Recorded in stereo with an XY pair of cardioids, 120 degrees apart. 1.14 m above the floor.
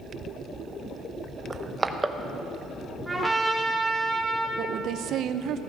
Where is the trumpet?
10° right, 1.6 m.